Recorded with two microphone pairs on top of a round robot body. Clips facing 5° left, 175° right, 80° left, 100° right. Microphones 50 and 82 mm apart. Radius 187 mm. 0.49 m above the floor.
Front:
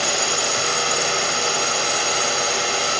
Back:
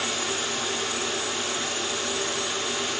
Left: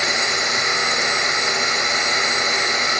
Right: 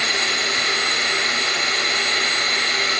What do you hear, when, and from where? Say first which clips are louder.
0.0 s a drone: front 6 dB, left 2 dB; 10° left